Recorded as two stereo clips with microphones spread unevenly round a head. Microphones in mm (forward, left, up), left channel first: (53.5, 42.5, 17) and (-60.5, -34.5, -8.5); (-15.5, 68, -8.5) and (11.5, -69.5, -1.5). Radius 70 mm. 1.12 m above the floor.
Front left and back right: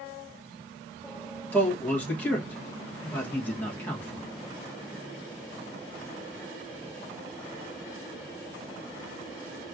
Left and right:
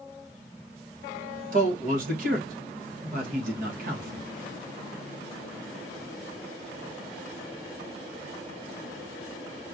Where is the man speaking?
50° right, 1.6 m.